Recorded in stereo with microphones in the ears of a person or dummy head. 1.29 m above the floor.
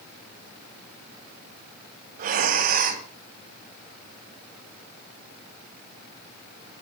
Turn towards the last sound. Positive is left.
turn(degrees=-45)  # may be behind; listen again after turning